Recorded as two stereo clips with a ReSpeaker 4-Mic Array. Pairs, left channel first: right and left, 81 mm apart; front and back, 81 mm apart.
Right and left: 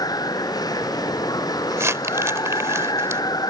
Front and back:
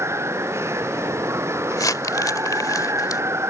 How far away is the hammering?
I don't hear hammering.